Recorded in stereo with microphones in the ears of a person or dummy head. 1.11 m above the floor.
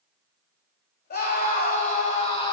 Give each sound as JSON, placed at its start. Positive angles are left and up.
{"t": 1.1, "sound": "a scream", "side_deg": 50, "distance_m": 2.5}